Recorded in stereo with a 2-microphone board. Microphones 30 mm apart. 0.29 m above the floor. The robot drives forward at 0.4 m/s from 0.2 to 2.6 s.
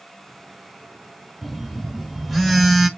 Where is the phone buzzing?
Centre (ahead or behind), 1.3 m.